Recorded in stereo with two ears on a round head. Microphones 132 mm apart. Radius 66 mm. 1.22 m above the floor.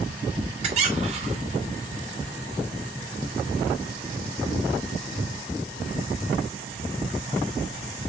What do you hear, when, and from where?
0.6 s a squeak: 45° right (ahead or behind), 1.3 m